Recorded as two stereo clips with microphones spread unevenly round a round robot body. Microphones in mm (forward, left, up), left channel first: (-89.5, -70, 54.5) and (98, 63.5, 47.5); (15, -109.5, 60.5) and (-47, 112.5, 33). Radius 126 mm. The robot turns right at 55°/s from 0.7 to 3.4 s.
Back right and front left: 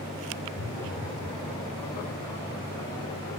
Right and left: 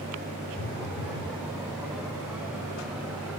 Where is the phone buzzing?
100° right, 4 m; by 1.3 s 65° right, 4 m.